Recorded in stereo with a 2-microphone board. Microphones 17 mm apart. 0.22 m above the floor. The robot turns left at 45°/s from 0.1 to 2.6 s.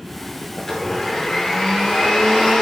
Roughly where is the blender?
Behind.